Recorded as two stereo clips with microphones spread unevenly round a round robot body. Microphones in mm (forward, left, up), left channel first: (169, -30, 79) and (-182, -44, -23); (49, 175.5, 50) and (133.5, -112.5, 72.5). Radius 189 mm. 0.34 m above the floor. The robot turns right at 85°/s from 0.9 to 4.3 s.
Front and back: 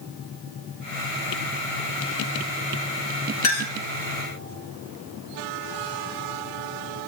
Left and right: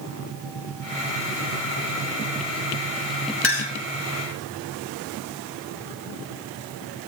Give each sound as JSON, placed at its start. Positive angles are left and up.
{"t": 3.4, "sound": "a clink", "azimuth_deg": 60, "distance_m": 2.0}